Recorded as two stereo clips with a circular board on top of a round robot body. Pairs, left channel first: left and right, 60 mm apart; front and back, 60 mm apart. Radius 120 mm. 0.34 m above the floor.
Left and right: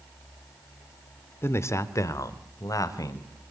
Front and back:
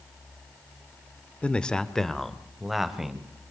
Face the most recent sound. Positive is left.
turn(degrees=95)